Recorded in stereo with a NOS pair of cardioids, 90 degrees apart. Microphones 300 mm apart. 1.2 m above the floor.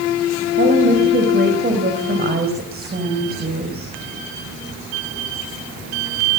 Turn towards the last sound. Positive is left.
turn(degrees=-30)